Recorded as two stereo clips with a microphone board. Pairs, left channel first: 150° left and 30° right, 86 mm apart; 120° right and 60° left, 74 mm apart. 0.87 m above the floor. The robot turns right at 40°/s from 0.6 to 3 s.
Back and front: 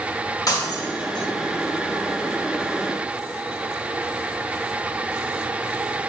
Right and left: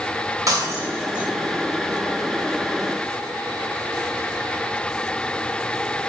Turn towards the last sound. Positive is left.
turn(degrees=-160)